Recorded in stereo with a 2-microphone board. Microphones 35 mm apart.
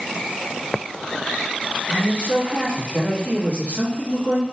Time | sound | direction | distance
1.9 | a man speaking | 35° left (ahead or behind) | 1.1 m